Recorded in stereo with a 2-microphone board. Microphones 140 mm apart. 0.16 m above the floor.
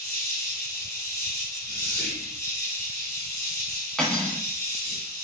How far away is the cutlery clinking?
About 0.8 m.